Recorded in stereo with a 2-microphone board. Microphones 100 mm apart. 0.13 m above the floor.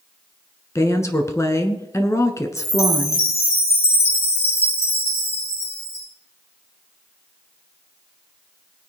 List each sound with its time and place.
0.8 s a woman speaking: 30° left (ahead or behind), 1.4 m
2.6 s a chime: 80° left, 5 m